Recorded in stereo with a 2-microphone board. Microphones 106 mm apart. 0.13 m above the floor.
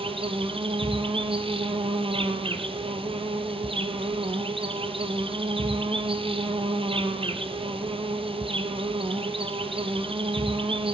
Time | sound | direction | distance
0.0 | an insect | 55° right (ahead or behind) | 1.6 m